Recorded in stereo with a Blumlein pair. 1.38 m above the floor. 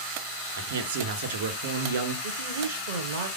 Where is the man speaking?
60° right, 1.3 m.